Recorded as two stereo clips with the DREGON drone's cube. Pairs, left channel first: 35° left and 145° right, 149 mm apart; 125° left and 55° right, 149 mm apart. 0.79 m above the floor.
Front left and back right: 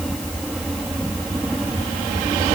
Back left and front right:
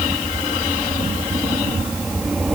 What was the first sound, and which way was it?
Only background noise.